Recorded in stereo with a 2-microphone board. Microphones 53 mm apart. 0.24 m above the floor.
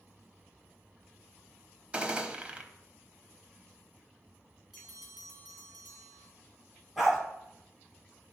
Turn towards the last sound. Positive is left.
turn(degrees=-5)  # may be behind; listen again after turning